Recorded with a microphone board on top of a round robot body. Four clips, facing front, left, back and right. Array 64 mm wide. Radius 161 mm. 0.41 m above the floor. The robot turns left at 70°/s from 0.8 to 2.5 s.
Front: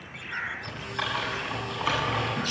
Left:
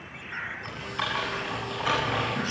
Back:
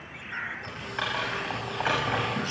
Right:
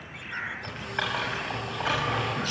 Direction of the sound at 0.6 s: 105° right.